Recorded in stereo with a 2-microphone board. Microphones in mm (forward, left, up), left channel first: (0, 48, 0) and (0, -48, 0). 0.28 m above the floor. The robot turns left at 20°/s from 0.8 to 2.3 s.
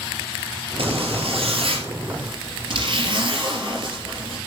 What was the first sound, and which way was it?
A zipper, 80° right.